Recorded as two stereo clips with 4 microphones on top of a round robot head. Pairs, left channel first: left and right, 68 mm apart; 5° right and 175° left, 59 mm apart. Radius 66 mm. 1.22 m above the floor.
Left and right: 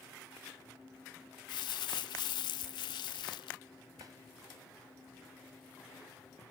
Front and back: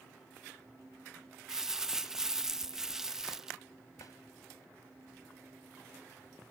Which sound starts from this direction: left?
Crumpling, at 1.5 s.